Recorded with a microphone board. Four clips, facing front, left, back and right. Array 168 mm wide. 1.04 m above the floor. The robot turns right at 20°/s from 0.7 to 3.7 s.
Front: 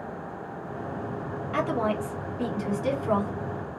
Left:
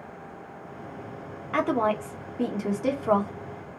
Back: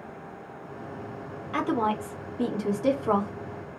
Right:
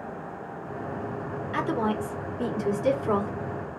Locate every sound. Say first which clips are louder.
1.5 s a woman speaking: left 3 dB, back 1 dB; 100° left, 1.0 m; by 3.3 s 135° left, 1.0 m